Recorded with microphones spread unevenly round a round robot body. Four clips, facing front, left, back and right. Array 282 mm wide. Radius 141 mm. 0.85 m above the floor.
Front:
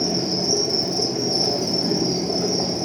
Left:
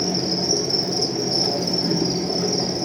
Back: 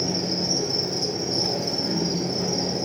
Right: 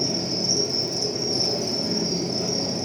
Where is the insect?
40° left, 0.9 m.